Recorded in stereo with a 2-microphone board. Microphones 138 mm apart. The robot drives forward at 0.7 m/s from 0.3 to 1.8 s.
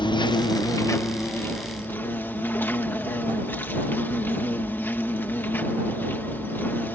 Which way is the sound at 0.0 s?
35° left (ahead or behind).